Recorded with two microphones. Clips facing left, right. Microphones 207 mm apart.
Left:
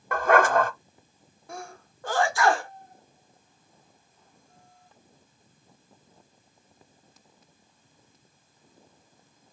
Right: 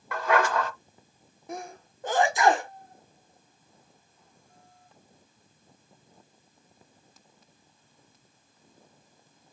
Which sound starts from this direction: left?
A dog barking, at 0.1 s.